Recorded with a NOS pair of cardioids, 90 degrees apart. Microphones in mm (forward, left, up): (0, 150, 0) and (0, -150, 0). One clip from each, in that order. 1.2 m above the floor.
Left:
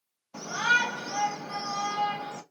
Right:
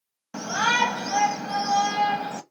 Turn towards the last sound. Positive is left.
turn(degrees=-55)